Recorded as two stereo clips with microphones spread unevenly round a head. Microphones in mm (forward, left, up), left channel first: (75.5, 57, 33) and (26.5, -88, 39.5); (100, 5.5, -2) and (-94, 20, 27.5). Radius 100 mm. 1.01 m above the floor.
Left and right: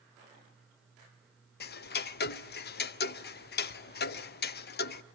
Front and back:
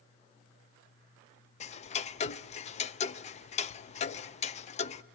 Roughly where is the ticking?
Ahead left.